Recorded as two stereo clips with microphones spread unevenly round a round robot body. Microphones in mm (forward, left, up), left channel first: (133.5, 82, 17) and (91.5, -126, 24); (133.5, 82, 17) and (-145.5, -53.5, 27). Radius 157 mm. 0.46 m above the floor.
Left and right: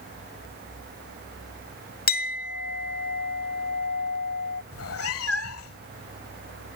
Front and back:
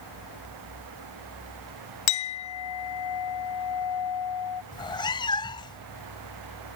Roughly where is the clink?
Ahead left.